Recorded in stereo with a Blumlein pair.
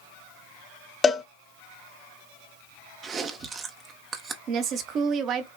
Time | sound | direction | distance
1.0 | a cowbell | 15° left | 0.6 m
3.0 | chewing | 25° right | 0.8 m
4.5 | a woman speaking | 35° right | 0.9 m